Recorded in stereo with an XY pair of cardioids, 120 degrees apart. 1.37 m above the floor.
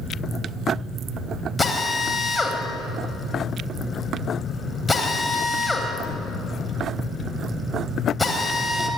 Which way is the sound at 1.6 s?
15° left.